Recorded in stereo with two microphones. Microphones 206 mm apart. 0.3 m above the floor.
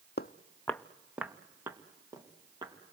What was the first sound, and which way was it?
Footsteps, 55° left (ahead or behind).